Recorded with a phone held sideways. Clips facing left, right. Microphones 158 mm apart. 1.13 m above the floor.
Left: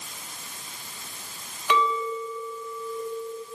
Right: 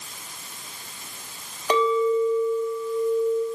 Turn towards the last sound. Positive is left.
turn(degrees=-40)  # may be behind; listen again after turning